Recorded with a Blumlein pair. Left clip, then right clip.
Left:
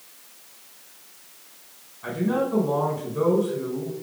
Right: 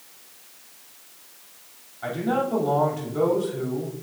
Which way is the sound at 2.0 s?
40° right.